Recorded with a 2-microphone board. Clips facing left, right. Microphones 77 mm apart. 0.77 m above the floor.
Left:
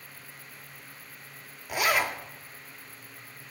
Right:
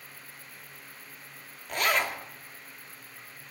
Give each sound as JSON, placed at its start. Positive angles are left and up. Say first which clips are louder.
{"t": 1.7, "sound": "a zipper", "louder": "left 1 dB", "side_deg": 10, "distance_m": 0.7}